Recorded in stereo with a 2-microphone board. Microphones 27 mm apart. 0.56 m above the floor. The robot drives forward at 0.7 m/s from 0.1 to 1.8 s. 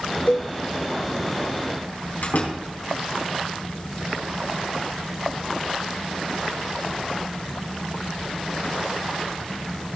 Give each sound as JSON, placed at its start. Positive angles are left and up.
{"t": 0.3, "sound": "a cowbell", "side_deg": 70, "distance_m": 0.6}
{"t": 2.2, "sound": "a door slam", "side_deg": 70, "distance_m": 4.0}